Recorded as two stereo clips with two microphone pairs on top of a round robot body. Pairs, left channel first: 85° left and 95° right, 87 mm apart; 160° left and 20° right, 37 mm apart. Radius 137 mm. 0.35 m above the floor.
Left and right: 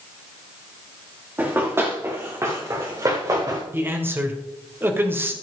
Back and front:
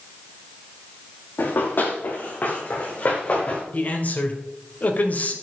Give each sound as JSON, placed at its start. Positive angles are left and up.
{"t": 1.4, "sound": "running footsteps", "azimuth_deg": -165, "distance_m": 4.0}
{"t": 3.7, "sound": "a man speaking", "azimuth_deg": -155, "distance_m": 2.0}